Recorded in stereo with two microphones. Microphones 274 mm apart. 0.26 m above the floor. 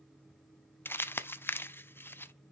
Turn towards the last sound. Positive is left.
turn(degrees=10)  # may be behind; listen again after turning